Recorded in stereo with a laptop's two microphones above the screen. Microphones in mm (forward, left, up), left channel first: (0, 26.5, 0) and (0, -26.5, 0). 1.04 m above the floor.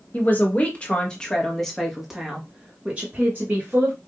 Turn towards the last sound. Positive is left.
turn(degrees=-40)  # may be behind; listen again after turning